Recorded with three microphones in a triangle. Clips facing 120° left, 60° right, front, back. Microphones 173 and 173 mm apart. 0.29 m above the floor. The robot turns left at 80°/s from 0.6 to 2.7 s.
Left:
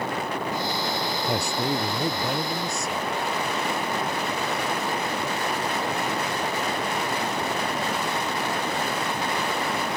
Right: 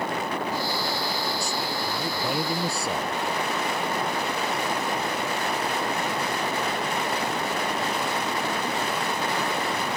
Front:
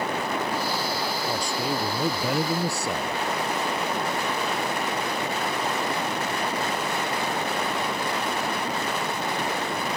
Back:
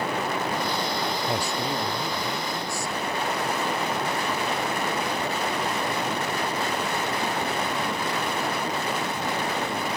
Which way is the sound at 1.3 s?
110° left.